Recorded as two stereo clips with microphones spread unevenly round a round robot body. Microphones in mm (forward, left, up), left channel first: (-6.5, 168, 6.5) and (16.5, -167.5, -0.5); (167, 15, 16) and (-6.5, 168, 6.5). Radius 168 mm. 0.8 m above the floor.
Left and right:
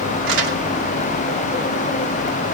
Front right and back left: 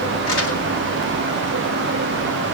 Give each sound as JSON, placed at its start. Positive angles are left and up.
{"t": 0.3, "sound": "crumpling", "azimuth_deg": -75, "distance_m": 2.5}